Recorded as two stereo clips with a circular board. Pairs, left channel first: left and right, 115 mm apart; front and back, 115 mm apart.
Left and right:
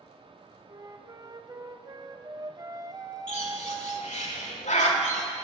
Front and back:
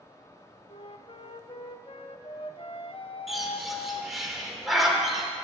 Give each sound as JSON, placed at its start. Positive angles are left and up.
{"t": 0.7, "sound": "a flute", "azimuth_deg": -35, "distance_m": 0.6}
{"t": 3.3, "sound": "a bird", "azimuth_deg": 90, "distance_m": 1.5}